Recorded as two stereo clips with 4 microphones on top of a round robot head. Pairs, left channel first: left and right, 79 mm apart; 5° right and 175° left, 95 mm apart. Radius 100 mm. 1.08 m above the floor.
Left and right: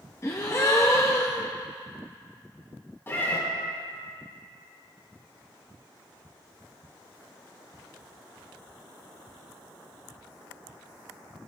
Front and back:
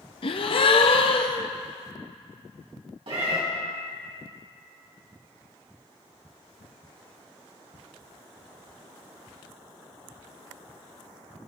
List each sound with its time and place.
0.2 s a gasp: 25° left, 0.6 m
3.1 s a cat meowing: 150° left, 3 m